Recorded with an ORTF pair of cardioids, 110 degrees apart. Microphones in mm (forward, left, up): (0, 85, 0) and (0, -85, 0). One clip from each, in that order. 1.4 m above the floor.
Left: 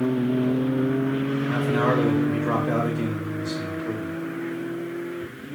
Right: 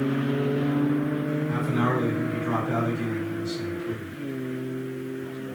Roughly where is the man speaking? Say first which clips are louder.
Left 5 dB; ahead left.